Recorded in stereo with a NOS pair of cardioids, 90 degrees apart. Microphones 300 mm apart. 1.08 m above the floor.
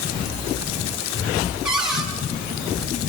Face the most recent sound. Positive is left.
turn(degrees=-5)